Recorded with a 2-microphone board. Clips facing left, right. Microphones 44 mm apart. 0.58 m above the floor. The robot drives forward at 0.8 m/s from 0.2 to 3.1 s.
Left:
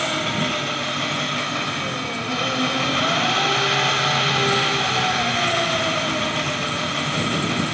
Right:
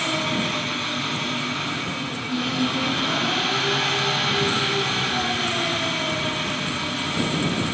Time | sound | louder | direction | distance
0.0 | an engine running | left 1 dB | 55° left (ahead or behind) | 3 m